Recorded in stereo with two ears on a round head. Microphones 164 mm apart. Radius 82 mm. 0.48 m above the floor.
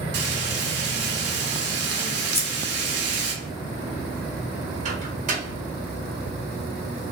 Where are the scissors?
15° left (ahead or behind), 0.5 m.